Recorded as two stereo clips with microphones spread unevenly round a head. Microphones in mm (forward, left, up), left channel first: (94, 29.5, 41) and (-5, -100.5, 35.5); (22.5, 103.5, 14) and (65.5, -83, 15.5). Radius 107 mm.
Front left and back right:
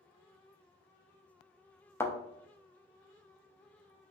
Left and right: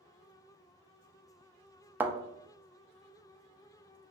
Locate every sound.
2.0 s a thud: 5° right, 0.6 m